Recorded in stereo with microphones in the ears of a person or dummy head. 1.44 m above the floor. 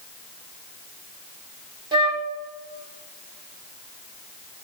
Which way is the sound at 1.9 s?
25° right (ahead or behind).